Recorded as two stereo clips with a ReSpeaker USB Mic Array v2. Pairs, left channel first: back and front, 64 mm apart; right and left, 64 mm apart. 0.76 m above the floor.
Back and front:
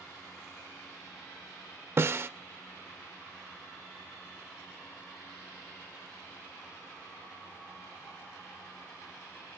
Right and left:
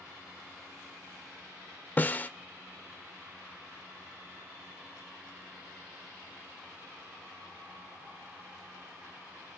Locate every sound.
2.0 s a snare drum: 35° right, 0.5 m